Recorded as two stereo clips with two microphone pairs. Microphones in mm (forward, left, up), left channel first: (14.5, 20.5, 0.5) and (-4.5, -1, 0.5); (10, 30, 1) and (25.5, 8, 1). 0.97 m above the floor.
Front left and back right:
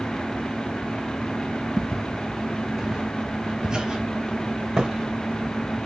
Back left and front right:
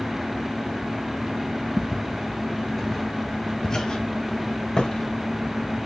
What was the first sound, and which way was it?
Footsteps, 35° right.